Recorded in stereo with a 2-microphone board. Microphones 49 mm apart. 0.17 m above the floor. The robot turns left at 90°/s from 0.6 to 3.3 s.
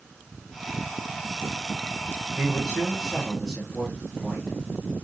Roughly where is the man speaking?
Right.